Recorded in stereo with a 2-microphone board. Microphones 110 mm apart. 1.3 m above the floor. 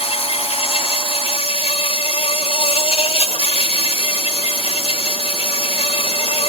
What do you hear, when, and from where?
0.0 s an insect: 65° left (ahead or behind)